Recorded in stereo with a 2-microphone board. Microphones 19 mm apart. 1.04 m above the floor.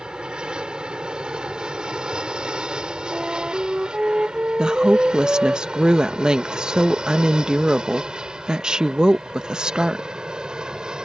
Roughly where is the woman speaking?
Right.